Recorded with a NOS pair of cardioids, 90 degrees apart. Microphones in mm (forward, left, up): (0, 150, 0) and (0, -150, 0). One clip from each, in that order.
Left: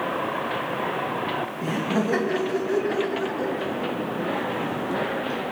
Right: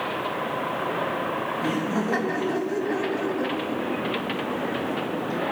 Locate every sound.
1.6 s laughter: 15° left, 2.5 m